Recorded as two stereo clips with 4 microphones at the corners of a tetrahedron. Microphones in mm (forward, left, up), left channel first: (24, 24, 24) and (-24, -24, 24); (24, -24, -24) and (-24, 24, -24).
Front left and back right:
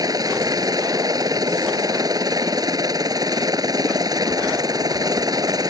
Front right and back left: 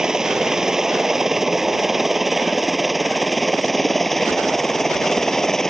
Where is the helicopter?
145° right; by 5.7 s 130° right.